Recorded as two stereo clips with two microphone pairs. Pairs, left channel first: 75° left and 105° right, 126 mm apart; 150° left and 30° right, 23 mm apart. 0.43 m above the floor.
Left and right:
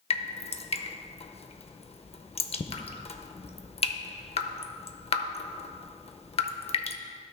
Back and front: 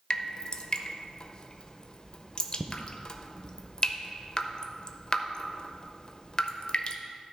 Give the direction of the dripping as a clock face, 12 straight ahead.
9 o'clock.